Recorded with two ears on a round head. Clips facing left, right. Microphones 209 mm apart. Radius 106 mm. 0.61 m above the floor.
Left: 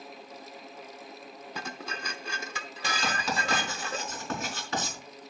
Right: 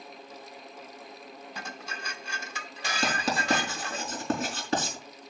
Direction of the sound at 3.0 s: 30° right (ahead or behind).